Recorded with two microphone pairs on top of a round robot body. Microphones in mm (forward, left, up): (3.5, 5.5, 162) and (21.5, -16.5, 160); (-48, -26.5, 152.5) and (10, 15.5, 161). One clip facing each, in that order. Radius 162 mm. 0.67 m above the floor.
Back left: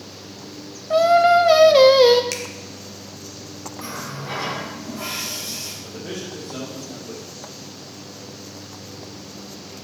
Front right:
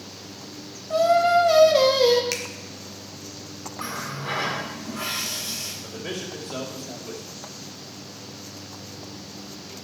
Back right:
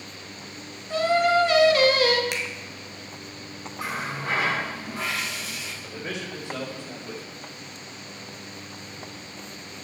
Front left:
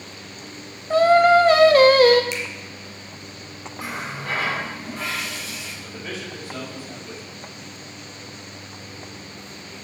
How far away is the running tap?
About 6 m.